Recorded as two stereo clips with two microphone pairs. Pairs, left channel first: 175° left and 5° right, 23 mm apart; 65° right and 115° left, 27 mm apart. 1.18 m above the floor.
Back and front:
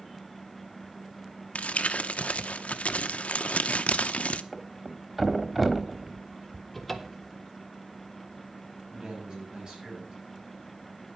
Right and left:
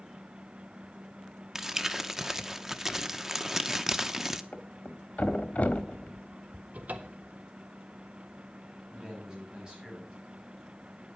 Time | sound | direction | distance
1.6 | crumpling | 175° right | 0.7 m
4.5 | a thud | 85° right | 1.2 m
6.7 | a cupboard door | 100° left | 1.2 m
8.9 | a man speaking | 55° left | 8 m